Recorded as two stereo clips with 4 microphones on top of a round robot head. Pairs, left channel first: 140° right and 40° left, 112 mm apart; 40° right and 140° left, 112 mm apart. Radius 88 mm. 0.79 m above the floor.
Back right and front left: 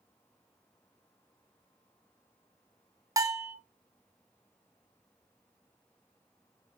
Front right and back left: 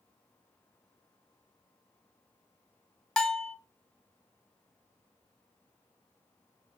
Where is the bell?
35° left, 0.7 m.